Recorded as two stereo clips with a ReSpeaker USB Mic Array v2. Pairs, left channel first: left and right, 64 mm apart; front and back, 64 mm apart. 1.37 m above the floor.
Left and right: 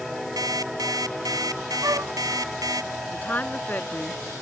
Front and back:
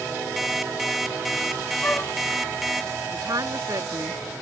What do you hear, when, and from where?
0.4 s an alarm clock: 95° right
1.8 s a flute: 60° right
3.1 s a woman speaking: 155° left